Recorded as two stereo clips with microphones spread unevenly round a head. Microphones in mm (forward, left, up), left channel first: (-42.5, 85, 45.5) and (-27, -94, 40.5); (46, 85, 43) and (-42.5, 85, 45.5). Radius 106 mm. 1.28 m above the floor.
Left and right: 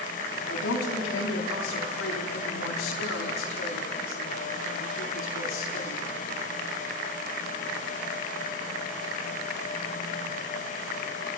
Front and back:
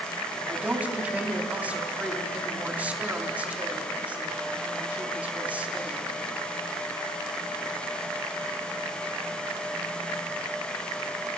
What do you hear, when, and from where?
0.5 s a woman speaking: 105° left, 4 m